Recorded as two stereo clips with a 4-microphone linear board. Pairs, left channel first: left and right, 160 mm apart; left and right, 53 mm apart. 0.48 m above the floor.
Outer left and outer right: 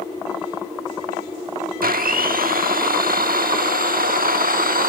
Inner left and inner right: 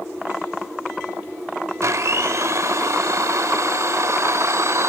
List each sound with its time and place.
1.8 s a blender: 65° right (ahead or behind), 0.7 m